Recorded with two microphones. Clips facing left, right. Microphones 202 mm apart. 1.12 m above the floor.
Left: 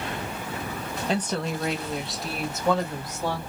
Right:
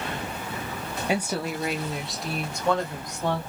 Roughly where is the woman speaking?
Centre.